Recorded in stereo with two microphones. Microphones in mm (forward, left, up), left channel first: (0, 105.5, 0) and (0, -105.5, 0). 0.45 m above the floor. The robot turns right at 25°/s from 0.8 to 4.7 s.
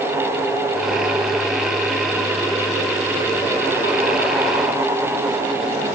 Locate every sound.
Only background noise.